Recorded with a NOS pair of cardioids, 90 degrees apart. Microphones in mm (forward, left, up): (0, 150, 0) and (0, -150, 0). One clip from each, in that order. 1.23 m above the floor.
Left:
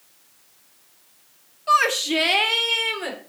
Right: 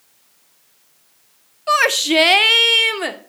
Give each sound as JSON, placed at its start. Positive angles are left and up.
{"t": 1.7, "sound": "a shout", "azimuth_deg": -25, "distance_m": 0.7}